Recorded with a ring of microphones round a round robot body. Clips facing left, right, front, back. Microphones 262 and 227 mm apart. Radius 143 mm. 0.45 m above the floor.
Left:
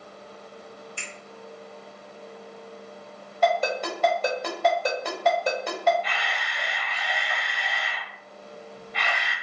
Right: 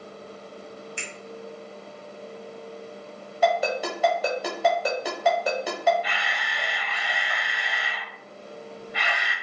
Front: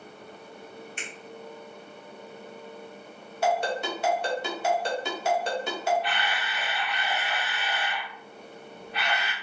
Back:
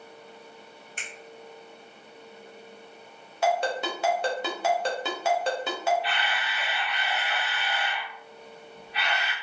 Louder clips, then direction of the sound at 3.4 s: Even, even; 175° right.